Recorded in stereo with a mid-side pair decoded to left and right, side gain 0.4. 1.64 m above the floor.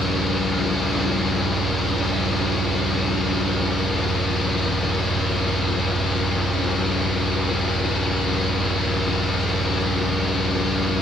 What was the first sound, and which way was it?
A fan, 55° left.